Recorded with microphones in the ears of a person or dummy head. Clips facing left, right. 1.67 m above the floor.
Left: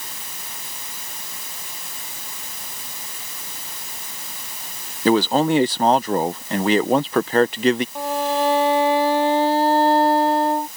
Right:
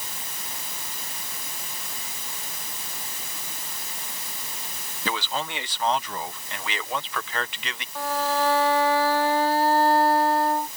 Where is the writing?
No writing in this recording.